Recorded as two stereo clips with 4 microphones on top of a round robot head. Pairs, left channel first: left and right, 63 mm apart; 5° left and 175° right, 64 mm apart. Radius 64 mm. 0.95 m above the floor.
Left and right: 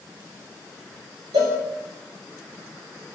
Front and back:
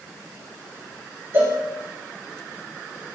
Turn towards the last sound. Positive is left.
turn(degrees=-120)